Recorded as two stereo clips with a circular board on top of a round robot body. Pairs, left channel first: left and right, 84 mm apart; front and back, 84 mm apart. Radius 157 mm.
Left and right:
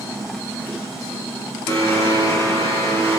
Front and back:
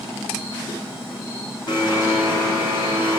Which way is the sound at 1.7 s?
35° left.